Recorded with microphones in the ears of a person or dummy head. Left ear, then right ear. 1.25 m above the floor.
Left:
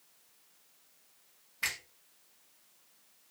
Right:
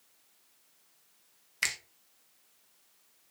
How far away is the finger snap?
About 1.0 m.